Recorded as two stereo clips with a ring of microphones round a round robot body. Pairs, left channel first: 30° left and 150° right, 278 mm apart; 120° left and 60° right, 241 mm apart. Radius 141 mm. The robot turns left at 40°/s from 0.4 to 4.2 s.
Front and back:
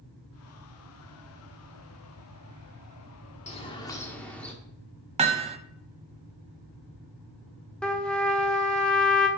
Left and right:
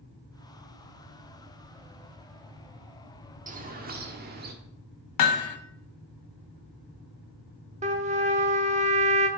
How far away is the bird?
About 1.3 m.